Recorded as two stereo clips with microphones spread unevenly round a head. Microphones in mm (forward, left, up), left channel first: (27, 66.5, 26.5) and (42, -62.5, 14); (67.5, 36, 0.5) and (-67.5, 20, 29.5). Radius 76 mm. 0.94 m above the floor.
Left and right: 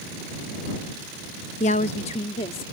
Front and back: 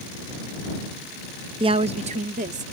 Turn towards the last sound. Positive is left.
turn(degrees=155)